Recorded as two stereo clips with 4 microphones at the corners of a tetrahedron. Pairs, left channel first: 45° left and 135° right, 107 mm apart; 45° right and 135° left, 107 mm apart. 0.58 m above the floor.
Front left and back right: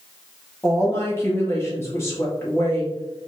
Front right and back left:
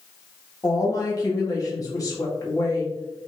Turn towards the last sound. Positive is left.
turn(degrees=-10)